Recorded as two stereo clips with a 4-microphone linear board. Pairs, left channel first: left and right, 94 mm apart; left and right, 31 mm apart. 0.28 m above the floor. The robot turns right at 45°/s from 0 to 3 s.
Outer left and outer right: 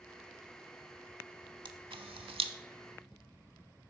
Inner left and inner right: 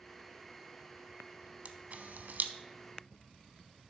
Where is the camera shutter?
55° right (ahead or behind), 0.5 m; by 2.5 s 75° right (ahead or behind), 0.5 m.